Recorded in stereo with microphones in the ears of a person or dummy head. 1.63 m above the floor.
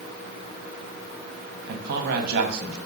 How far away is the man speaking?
About 1.0 m.